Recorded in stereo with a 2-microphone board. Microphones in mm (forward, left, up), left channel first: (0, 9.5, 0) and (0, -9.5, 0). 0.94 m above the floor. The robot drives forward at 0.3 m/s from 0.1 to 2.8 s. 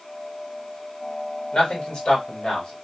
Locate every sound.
1.5 s a man speaking: 65° left (ahead or behind), 1.7 m; by 2.7 s 70° left (ahead or behind), 1.6 m